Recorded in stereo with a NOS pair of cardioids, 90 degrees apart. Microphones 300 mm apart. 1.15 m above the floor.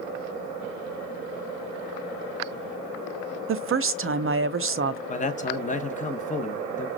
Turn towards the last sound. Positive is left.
turn(degrees=25)